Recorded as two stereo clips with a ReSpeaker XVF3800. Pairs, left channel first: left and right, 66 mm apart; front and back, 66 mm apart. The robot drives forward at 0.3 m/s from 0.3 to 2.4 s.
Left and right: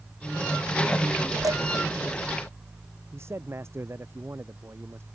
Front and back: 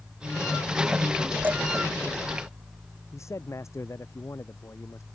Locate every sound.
1.4 s dishes clattering: 115° right; by 1.6 s 120° right
3.1 s a man speaking: 40° right